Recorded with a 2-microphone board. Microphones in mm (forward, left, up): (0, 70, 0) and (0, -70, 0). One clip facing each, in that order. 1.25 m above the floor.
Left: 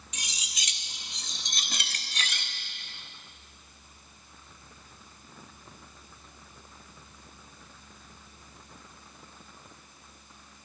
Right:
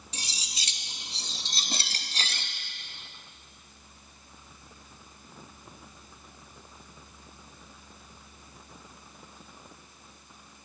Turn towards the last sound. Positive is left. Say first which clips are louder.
# right 1 dB
turn(degrees=-30)  # may be behind; listen again after turning